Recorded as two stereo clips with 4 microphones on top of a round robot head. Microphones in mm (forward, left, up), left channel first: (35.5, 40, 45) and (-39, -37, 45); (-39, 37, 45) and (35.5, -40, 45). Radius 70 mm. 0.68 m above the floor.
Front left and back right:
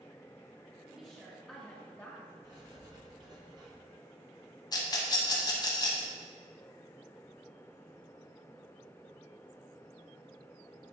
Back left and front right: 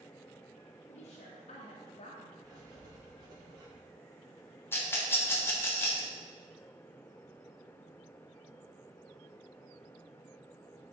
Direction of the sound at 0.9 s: 145° left.